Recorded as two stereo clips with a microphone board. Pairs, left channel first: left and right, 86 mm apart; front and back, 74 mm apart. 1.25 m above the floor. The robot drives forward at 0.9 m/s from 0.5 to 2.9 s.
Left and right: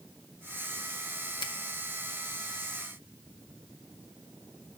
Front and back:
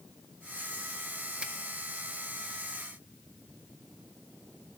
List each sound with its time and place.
1.4 s a finger snap: 105° left, 1.7 m